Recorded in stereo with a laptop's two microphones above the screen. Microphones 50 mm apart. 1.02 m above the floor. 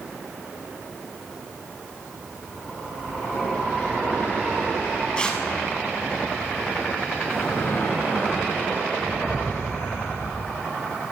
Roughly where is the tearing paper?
Centre.